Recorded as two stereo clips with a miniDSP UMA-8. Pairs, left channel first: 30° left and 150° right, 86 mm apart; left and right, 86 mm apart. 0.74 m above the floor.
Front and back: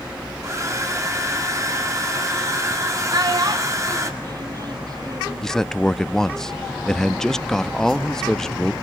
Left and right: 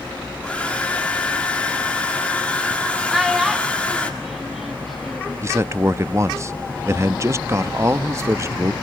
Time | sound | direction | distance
0.4 | a hair dryer | 165° left | 2 m
3.1 | a child speaking | straight behind | 1.0 m
5.4 | a man speaking | 50° right | 0.6 m